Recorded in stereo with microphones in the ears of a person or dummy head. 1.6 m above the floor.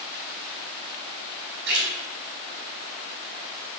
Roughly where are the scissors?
No scissors in this recording.